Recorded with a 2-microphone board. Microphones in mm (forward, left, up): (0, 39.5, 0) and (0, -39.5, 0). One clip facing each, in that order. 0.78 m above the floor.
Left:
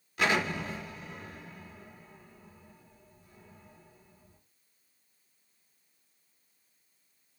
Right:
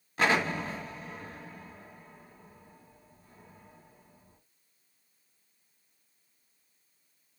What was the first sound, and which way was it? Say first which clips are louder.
An explosion: right 2 dB; 35° right (ahead or behind).